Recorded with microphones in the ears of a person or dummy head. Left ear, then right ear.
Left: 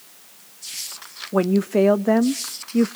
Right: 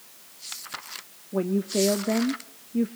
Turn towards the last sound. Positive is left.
turn(degrees=45)  # may be behind; listen again after turning